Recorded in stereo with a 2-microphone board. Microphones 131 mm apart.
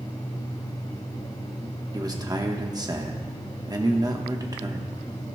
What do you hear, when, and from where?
1.9 s a man speaking: 30° right (ahead or behind), 1.0 m